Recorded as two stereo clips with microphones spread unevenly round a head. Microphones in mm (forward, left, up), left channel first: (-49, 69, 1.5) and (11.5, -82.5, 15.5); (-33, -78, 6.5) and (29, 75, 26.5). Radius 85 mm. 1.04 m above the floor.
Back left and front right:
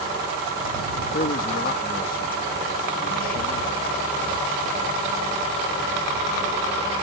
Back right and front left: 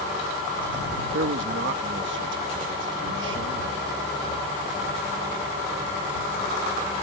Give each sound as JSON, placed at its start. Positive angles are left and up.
{"t": 1.1, "sound": "a man speaking", "azimuth_deg": 75}